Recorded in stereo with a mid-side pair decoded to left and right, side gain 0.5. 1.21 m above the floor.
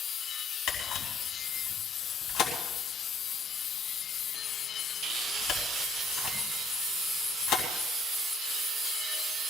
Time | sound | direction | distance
0.7 | a camera shutter | 65° left | 3 m